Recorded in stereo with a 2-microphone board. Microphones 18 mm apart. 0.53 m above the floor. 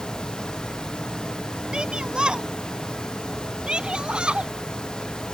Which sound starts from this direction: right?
A shout, at 1.7 s.